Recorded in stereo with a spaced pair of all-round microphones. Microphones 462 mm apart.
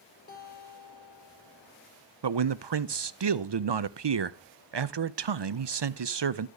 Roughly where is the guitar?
Left.